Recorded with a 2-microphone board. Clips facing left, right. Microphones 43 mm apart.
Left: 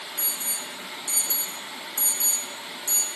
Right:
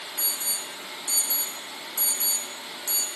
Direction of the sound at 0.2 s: 55° left (ahead or behind).